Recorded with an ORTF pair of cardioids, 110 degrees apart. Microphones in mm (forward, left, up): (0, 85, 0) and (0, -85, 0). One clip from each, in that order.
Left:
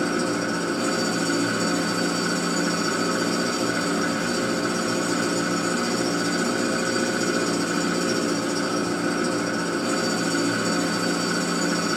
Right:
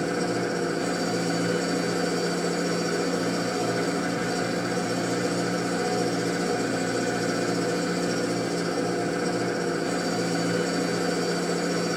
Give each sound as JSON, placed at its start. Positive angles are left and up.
{"t": 0.0, "sound": "an engine running", "azimuth_deg": 65, "distance_m": 9.5}